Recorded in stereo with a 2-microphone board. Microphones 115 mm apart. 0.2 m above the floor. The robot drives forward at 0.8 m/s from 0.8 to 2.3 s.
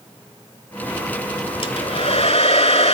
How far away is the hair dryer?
About 1.0 m.